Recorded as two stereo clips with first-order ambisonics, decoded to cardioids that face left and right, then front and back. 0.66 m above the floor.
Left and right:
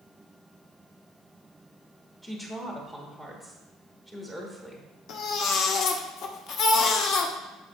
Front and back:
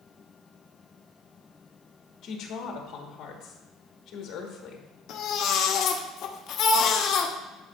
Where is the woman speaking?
5° left, 1.1 m.